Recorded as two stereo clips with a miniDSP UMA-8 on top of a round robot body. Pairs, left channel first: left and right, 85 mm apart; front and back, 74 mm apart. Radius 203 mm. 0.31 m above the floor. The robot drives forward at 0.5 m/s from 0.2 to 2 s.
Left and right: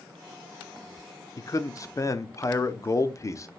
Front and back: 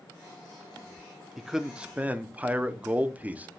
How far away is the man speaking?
About 1.1 m.